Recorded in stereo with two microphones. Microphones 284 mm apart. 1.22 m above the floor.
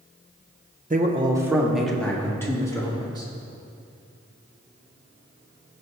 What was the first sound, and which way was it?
A man speaking, 30° right (ahead or behind).